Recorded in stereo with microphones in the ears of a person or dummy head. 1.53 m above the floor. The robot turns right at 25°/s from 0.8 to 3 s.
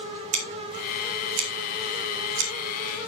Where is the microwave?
No microwave in this recording.